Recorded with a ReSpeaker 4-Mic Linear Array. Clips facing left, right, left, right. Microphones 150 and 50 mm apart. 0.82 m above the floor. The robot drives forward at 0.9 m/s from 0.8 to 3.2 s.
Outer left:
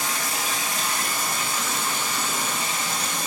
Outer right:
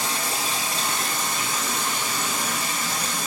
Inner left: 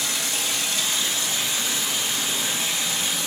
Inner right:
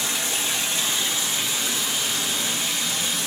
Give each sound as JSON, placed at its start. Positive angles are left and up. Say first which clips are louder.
{"t": 0.0, "sound": "running water", "louder": "outer right 1 dB, inner right 1 dB", "side_deg": -30, "distance_m": 0.8}